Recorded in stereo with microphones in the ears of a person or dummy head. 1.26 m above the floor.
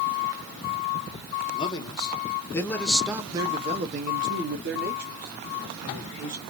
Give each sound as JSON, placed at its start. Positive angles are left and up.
{"t": 1.6, "sound": "a man speaking", "side_deg": 35, "distance_m": 1.1}